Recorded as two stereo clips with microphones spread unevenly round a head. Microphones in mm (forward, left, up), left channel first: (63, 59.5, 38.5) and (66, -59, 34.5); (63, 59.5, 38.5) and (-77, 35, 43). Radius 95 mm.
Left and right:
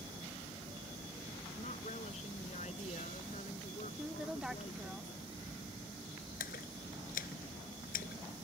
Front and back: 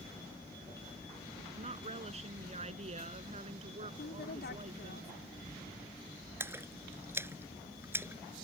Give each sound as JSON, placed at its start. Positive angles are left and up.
{"t": 1.6, "sound": "a woman speaking", "azimuth_deg": 145}
{"t": 4.0, "sound": "a woman speaking", "azimuth_deg": -5}
{"t": 6.4, "sound": "a splash", "azimuth_deg": 115}